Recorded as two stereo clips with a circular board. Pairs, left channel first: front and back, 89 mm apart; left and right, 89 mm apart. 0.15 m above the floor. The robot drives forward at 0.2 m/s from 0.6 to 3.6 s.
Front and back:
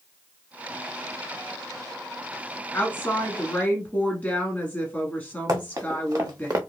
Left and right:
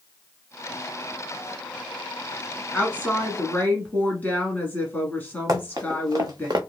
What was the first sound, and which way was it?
A woman speaking, 40° left.